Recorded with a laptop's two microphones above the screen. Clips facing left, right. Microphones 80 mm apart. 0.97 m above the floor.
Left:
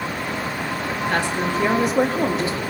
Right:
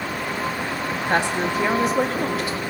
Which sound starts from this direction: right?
A woman speaking, at 1.1 s.